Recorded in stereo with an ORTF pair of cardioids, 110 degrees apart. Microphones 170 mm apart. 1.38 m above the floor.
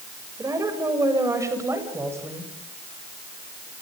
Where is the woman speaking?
20° right, 7 m; by 2.5 s 15° right, 8.5 m.